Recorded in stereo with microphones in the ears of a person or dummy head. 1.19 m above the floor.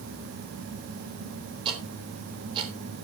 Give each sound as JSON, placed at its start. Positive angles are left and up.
{"t": 1.6, "sound": "ticking", "side_deg": -25, "distance_m": 3.0}